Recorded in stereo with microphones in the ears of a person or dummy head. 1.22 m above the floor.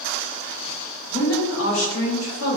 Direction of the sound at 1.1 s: 45° left (ahead or behind).